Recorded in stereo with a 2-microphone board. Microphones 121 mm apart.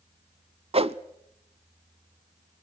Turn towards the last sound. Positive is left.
turn(degrees=-55)  # may be behind; listen again after turning